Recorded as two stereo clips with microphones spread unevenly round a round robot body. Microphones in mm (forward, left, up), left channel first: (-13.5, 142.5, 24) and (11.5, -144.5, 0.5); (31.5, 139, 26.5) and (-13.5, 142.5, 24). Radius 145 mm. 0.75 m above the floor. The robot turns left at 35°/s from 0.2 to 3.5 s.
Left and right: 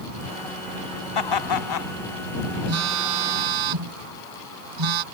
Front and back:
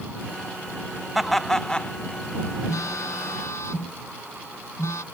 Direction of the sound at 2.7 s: 40° right.